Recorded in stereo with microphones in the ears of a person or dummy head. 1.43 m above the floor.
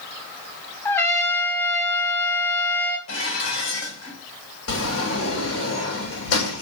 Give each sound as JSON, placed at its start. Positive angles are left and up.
{"t": 0.8, "sound": "a trumpet", "side_deg": 15, "distance_m": 1.1}
{"t": 3.1, "sound": "dishes clattering", "side_deg": 80, "distance_m": 3.5}
{"t": 4.7, "sound": "a sliding door", "side_deg": 80, "distance_m": 3.0}